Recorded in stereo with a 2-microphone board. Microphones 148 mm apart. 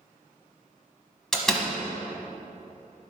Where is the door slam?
5° left (ahead or behind), 1.2 m.